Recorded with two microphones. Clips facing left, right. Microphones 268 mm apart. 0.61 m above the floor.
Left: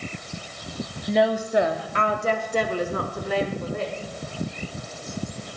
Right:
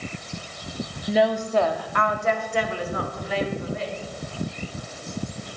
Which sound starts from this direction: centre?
A woman speaking, at 1.1 s.